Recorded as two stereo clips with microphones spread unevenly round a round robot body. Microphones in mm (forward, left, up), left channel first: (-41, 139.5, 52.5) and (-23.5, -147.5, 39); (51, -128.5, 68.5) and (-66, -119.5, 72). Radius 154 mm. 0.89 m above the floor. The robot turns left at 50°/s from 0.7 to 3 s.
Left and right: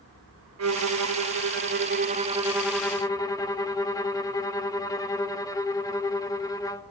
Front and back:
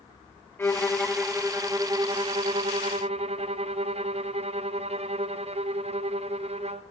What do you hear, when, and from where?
0.6 s a violin: 75° right, 1.5 m; by 6.8 s 170° left, 1.5 m